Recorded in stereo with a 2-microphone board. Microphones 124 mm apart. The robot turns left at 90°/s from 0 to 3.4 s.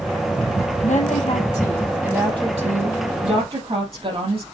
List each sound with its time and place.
0.8 s a woman speaking: 100° left, 4 m; by 4.4 s 130° right, 4 m